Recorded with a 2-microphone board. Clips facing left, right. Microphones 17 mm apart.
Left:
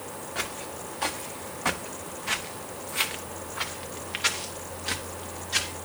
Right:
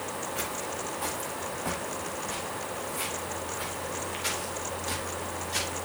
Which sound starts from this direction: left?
Footsteps, at 0.3 s.